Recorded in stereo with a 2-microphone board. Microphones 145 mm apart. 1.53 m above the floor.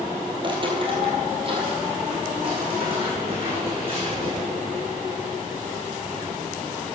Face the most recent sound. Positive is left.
turn(degrees=-40)  # may be behind; listen again after turning